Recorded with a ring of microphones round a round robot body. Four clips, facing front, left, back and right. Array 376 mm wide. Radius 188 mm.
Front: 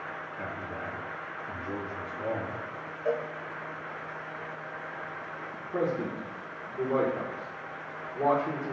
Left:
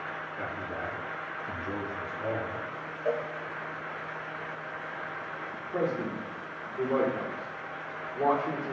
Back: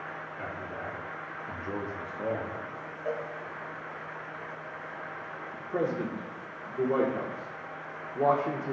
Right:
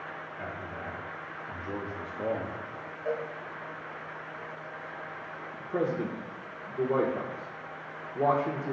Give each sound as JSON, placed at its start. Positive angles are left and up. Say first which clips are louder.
{"t": 0.4, "sound": "a man speaking", "louder": "left 3 dB, even", "azimuth_deg": 85, "distance_m": 1.9}
{"t": 3.0, "sound": "a cowbell", "louder": "left 2 dB, front 4 dB", "azimuth_deg": 55, "distance_m": 0.5}
{"t": 5.6, "sound": "a man speaking", "louder": "right 1 dB, even", "azimuth_deg": -130, "distance_m": 0.9}